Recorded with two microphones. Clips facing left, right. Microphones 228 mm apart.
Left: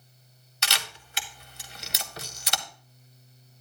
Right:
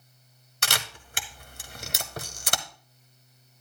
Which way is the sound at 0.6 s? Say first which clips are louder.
Right 2 dB; 50° right (ahead or behind).